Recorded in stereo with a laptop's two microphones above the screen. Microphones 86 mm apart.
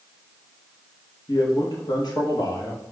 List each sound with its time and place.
1.3 s a man speaking: 55° left (ahead or behind), 1.1 m